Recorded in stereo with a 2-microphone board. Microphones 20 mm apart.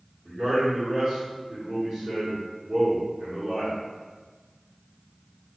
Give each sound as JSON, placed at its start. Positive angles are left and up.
{"t": 0.2, "sound": "a man speaking", "side_deg": -55, "distance_m": 1.2}